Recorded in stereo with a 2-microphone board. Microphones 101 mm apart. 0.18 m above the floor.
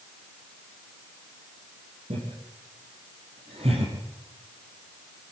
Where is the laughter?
80° right, 7.5 m; by 5.3 s 65° right (ahead or behind), 6 m.